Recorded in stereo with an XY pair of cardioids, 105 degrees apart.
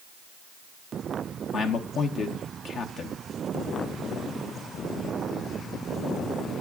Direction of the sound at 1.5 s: 60° left.